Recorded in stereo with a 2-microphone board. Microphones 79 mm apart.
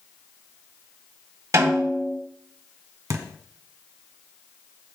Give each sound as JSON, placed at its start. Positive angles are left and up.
{"t": 1.5, "sound": "a snare drum", "side_deg": -50, "distance_m": 4.0}
{"t": 3.1, "sound": "a thud", "side_deg": -50, "distance_m": 1.0}